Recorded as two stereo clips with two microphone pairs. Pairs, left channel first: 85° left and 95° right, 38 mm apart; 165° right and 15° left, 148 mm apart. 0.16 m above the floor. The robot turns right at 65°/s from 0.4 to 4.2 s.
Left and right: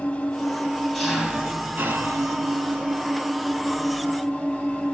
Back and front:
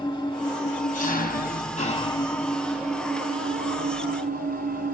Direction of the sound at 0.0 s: 140° left.